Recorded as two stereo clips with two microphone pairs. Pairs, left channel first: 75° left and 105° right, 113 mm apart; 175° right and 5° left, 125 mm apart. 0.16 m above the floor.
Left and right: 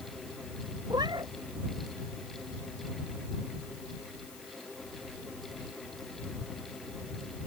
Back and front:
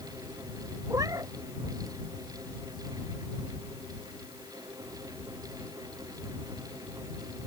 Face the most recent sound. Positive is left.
turn(degrees=-55)